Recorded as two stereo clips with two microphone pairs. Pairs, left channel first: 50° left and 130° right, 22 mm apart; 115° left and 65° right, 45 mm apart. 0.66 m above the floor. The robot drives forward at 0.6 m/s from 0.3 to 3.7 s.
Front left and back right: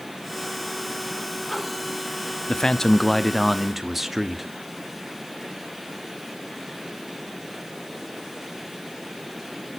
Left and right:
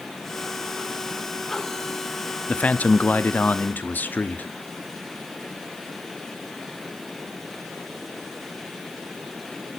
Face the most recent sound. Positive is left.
turn(degrees=145)